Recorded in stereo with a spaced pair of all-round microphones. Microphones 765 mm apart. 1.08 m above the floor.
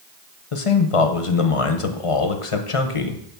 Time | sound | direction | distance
0.5 | a man speaking | 45° left (ahead or behind) | 0.9 m